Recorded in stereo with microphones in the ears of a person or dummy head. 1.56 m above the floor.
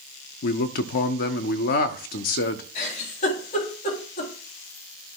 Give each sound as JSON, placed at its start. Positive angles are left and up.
{"t": 0.4, "sound": "a man speaking", "side_deg": 55, "distance_m": 0.7}
{"t": 2.8, "sound": "a giggle", "side_deg": 40, "distance_m": 3.0}